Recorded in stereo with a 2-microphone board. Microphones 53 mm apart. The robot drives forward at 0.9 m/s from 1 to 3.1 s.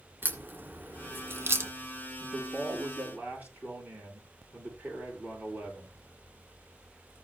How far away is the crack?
About 2 m.